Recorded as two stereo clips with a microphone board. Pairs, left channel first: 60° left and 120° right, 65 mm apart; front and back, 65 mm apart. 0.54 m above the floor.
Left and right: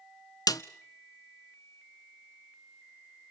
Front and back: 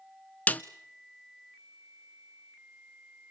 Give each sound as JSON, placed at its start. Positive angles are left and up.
{"t": 0.5, "sound": "a snare drum", "azimuth_deg": 65, "distance_m": 0.9}